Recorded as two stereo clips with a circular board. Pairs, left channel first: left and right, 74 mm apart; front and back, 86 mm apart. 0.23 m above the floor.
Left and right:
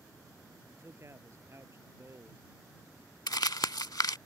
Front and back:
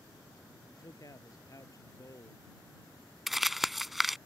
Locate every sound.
0.7 s a man speaking: 40° right
3.3 s crumpling: 90° left